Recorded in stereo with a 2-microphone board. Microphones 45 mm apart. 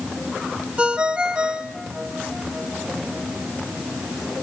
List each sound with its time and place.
0.8 s a ringtone: 25° right (ahead or behind), 1.5 m